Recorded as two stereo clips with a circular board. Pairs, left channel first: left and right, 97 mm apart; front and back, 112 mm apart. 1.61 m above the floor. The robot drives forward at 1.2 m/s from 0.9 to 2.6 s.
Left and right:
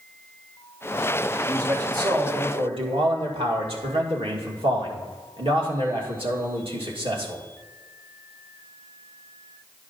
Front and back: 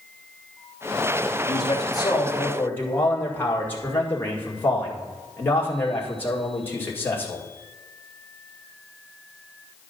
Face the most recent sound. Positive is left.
turn(degrees=-70)